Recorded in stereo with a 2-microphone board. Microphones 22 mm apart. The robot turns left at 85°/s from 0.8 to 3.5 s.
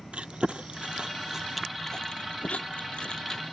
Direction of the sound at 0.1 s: 65° right (ahead or behind).